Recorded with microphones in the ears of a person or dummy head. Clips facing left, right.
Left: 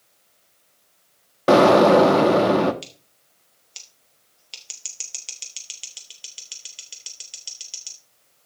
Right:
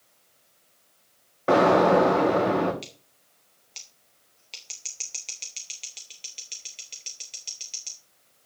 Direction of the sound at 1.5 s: 60° left (ahead or behind).